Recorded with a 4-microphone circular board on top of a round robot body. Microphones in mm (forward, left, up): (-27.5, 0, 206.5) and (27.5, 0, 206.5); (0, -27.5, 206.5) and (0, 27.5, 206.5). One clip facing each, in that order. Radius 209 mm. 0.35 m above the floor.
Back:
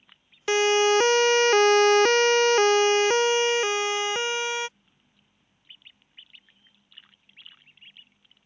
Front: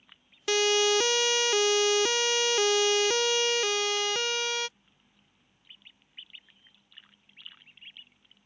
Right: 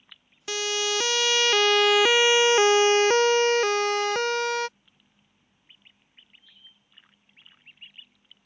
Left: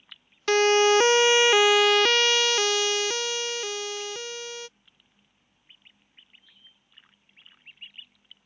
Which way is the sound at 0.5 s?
125° left.